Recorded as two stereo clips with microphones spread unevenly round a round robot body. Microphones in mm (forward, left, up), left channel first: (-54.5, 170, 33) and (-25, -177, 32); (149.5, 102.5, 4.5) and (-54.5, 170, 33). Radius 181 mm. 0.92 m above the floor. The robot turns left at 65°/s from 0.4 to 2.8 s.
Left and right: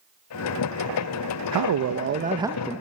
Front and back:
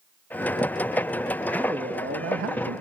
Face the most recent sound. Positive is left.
turn(degrees=170)